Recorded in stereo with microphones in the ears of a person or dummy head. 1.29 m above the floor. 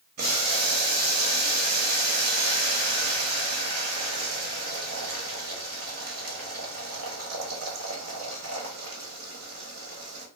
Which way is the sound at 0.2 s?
50° right (ahead or behind).